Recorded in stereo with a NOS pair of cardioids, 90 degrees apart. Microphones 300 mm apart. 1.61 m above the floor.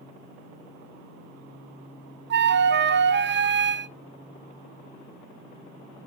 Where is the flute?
35° right, 0.6 m.